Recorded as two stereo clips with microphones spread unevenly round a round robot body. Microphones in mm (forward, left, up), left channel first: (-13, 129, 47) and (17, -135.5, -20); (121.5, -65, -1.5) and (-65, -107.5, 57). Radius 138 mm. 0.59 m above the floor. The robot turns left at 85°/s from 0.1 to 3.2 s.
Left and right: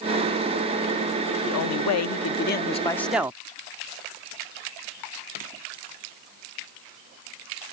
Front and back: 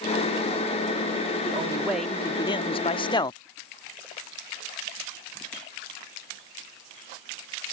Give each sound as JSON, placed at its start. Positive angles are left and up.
{"t": 1.5, "sound": "a man speaking", "azimuth_deg": 130}